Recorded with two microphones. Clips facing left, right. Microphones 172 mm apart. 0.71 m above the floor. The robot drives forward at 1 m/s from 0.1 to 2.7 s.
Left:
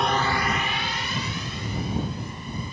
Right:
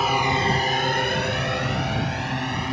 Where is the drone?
5° right (ahead or behind); by 2.7 s 75° right (ahead or behind).